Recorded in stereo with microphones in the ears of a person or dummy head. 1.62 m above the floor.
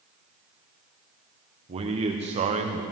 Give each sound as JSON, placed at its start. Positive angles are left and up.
{"t": 1.7, "sound": "a man speaking", "side_deg": -25, "distance_m": 1.2}